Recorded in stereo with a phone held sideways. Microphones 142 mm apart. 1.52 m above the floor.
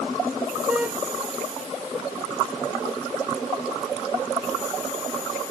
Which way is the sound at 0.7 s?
10° right (ahead or behind).